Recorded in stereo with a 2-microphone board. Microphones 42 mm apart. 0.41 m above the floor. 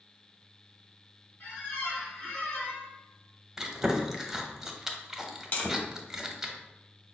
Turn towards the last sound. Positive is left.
turn(degrees=40)  # may be behind; listen again after turning